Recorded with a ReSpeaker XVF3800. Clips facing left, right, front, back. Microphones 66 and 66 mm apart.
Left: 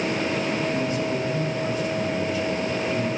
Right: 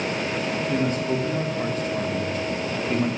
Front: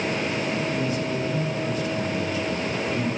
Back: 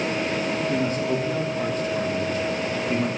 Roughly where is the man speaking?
Behind right.